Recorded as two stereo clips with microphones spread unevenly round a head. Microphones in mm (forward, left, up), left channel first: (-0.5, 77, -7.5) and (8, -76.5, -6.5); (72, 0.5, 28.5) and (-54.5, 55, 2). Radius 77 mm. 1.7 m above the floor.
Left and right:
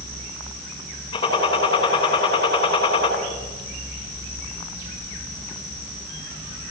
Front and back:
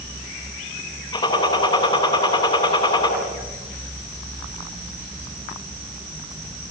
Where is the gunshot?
30° left, 9 m.